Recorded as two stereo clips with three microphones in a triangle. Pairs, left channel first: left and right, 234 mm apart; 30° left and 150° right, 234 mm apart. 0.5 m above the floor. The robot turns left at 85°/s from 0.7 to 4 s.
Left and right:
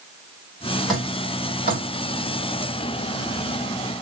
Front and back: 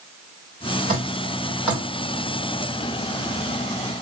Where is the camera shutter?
I don't hear a camera shutter.